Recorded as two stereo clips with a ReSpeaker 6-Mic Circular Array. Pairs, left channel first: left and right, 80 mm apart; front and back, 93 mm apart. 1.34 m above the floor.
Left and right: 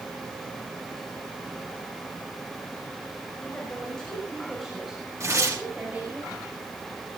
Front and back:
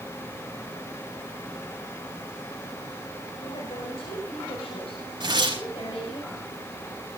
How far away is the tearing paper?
About 5.5 m.